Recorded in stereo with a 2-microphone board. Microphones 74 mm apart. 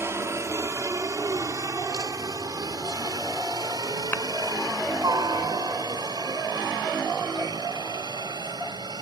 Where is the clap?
25° left (ahead or behind).